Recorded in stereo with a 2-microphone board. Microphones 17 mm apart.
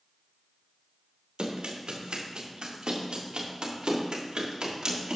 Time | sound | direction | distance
1.4 | running footsteps | 80° right | 3.5 m